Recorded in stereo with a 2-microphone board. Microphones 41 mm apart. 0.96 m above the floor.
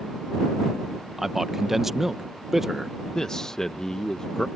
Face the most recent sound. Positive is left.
turn(degrees=15)  # may be behind; listen again after turning